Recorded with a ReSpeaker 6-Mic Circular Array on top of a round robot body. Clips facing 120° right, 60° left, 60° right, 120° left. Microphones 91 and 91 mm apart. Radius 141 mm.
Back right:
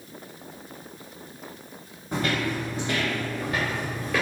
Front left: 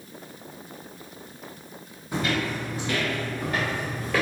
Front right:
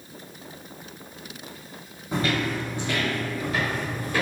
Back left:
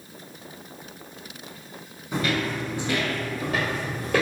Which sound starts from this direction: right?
Footsteps, at 2.1 s.